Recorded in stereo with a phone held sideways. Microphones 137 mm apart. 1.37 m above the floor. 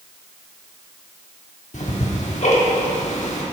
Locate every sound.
1.7 s ticking: 60° left (ahead or behind), 1.3 m